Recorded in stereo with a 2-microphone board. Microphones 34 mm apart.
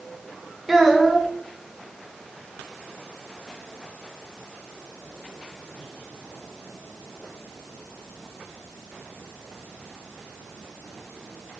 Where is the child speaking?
Centre (ahead or behind), 0.6 m.